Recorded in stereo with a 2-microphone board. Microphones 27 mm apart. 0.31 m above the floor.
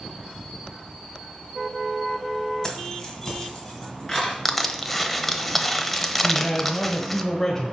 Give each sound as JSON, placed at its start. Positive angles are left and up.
{"t": 2.6, "sound": "keys jangling", "side_deg": 20, "distance_m": 1.7}
{"t": 4.5, "sound": "crushing", "side_deg": 5, "distance_m": 0.9}
{"t": 6.2, "sound": "a man speaking", "side_deg": 15, "distance_m": 1.1}